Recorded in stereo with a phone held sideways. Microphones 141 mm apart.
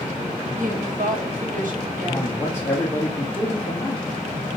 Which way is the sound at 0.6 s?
70° right (ahead or behind).